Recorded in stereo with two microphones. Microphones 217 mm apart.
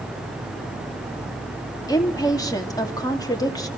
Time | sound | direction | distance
1.9 | a woman speaking | 15° left (ahead or behind) | 2.5 m